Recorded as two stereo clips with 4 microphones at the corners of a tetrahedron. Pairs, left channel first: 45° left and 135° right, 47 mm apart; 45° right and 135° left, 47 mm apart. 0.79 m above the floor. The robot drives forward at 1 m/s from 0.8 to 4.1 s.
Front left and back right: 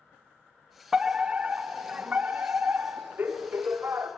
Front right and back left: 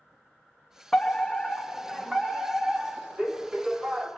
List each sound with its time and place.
0.9 s a fire alarm: 95° right, 1.8 m; by 4.1 s 170° right, 3.5 m